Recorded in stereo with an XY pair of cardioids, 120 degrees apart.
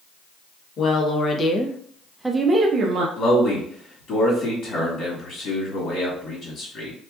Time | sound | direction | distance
0.8 | a woman speaking | 50° left | 1.1 m
3.2 | a man speaking | 55° left | 1.9 m